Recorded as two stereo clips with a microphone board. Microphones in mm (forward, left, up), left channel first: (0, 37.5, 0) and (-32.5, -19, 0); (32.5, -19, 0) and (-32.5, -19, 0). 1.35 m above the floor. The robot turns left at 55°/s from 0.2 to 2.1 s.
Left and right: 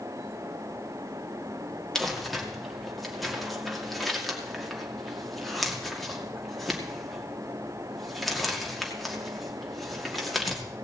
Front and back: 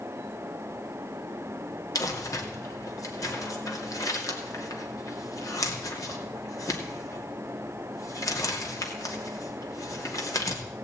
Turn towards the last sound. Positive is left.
turn(degrees=-30)